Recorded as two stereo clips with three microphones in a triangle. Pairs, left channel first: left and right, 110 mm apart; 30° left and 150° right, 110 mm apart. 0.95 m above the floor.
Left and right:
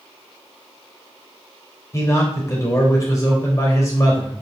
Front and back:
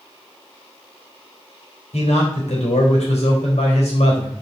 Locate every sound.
1.9 s a man speaking: 30° left, 4 m